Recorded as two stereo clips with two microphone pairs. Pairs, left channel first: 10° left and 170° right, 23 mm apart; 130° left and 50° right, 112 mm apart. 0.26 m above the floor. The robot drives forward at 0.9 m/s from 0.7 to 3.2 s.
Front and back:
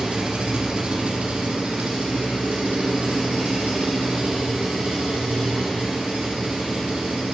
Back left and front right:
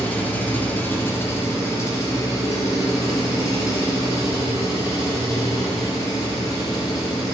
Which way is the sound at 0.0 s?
165° right.